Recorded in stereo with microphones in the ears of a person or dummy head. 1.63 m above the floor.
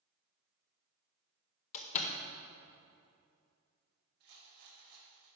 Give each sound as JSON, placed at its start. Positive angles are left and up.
{"t": 1.7, "sound": "a door slam", "side_deg": 40, "distance_m": 0.6}
{"t": 4.2, "sound": "a rattle", "side_deg": -50, "distance_m": 2.5}